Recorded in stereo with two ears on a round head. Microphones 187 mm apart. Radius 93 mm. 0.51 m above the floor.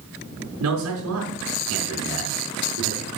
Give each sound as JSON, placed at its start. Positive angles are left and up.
{"t": 0.6, "sound": "a man speaking", "side_deg": -80, "distance_m": 4.5}